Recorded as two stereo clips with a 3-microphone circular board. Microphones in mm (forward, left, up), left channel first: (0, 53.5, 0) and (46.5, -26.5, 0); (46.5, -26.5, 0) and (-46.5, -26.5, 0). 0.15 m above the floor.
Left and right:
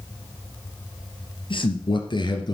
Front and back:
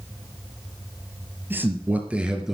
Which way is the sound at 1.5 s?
115° left.